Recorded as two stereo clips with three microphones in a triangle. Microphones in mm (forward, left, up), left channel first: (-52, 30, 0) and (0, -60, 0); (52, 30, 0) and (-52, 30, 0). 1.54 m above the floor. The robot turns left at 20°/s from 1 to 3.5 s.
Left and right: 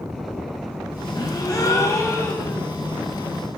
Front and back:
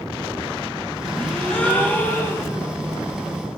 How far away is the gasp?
About 0.7 m.